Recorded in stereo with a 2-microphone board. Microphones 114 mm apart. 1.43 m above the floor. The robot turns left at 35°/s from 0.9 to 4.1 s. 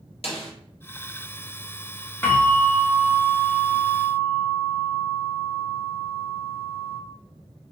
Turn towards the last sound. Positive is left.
turn(degrees=-45)